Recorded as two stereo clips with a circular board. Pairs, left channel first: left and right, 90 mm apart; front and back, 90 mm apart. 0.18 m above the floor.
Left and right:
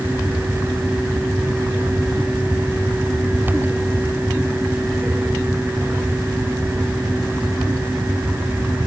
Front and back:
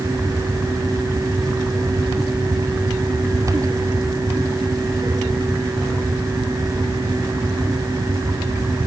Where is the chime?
I don't hear a chime.